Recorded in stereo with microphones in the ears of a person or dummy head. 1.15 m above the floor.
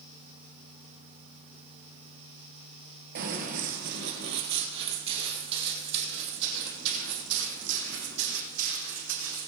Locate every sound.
3.1 s running footsteps: 45° right (ahead or behind), 1.5 m; by 9.5 s 60° right (ahead or behind), 4.5 m